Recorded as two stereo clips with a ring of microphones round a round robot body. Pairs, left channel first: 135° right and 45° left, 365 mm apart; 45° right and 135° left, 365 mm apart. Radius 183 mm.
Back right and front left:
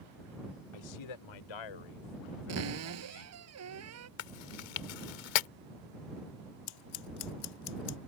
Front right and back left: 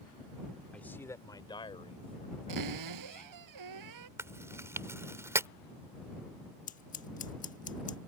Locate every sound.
0.7 s a man speaking: 130° right; by 3.3 s 115° right
2.5 s a cupboard door: 95° left
4.2 s chewing: 140° right
6.7 s scissors: 115° right